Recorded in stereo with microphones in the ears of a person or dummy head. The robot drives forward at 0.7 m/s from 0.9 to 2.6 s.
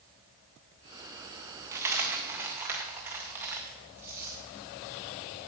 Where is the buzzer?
No buzzer in this recording.